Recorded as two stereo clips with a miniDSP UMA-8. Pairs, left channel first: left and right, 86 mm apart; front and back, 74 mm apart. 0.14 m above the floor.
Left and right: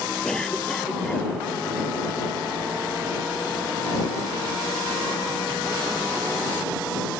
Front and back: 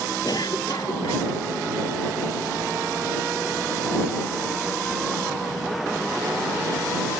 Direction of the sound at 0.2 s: 10° left.